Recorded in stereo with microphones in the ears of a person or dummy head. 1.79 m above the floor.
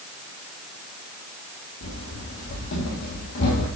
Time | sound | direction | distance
1.8 | running footsteps | 65° left (ahead or behind) | 5 m